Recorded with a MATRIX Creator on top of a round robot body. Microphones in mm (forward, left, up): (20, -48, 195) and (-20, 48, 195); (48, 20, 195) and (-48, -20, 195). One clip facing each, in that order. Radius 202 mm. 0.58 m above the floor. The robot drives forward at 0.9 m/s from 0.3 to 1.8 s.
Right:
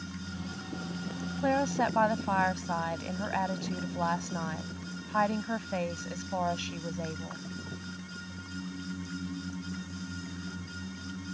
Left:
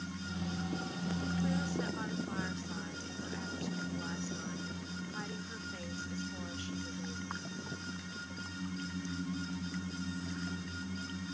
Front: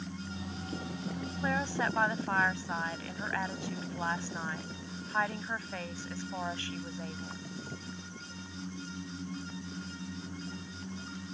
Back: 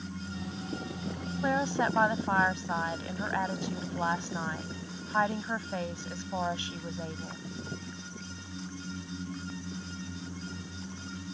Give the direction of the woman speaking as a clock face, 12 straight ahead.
3 o'clock.